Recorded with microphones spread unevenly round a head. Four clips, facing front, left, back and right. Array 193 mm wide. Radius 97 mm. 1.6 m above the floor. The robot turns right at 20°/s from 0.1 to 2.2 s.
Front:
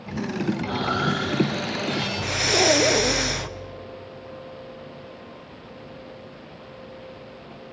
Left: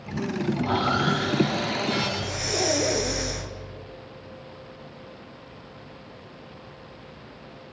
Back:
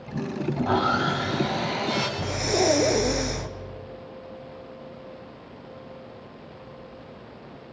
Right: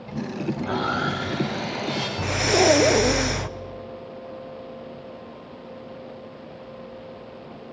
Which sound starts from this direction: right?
Breathing, at 2.2 s.